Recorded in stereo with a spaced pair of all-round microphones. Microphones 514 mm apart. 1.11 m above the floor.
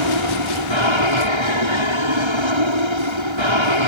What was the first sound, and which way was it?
An aircraft, 65° right (ahead or behind).